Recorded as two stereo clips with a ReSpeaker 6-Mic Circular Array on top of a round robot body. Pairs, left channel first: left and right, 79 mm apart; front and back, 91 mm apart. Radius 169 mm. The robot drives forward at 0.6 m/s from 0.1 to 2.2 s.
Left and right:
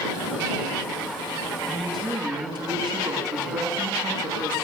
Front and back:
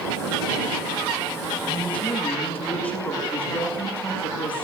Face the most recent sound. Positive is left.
turn(degrees=-75)